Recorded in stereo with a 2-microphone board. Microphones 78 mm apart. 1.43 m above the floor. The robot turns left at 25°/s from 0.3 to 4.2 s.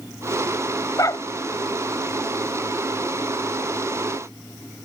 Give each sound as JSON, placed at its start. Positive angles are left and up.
{"t": 1.0, "sound": "a dog barking", "side_deg": 45}